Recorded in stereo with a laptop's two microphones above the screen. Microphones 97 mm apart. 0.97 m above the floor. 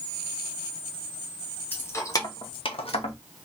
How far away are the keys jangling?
About 0.7 m.